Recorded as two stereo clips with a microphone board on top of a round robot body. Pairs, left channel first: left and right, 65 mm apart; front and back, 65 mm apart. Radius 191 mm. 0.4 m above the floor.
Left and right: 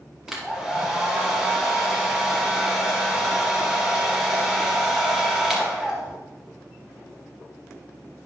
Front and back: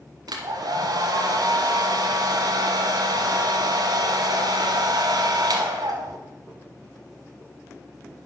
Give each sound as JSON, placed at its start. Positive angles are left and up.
{"t": 0.3, "sound": "a hair dryer", "azimuth_deg": -175, "distance_m": 1.2}